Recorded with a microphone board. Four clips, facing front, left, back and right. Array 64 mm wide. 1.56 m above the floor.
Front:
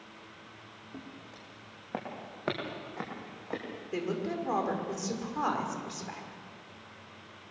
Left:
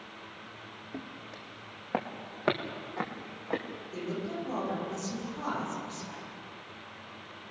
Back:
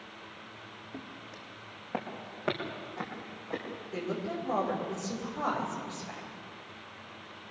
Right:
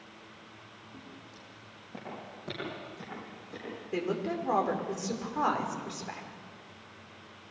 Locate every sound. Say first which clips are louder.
0.9 s footsteps: left 8 dB, back 1 dB; 100° left, 5 m; by 3.6 s 75° left, 6 m
3.9 s a woman speaking: right 4 dB, front 2 dB; 60° right, 6 m